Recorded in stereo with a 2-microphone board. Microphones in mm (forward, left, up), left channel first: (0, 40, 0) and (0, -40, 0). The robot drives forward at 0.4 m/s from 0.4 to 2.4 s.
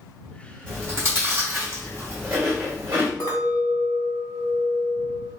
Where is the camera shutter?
No camera shutter in this recording.